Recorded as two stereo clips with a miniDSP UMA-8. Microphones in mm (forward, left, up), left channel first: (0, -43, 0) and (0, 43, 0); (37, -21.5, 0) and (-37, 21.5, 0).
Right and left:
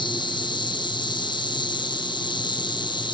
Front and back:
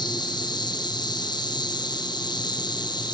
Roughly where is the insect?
Ahead right.